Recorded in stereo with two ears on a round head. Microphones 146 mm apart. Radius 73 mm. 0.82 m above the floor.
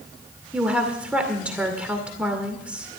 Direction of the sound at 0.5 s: 5° right (ahead or behind).